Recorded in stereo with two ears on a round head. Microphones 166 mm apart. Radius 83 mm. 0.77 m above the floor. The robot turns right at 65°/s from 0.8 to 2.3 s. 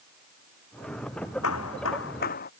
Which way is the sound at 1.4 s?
75° left.